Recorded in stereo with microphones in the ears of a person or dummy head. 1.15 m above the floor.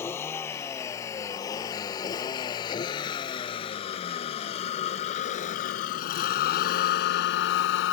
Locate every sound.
0.0 s a vehicle: 20° left (ahead or behind); by 7.9 s 80° left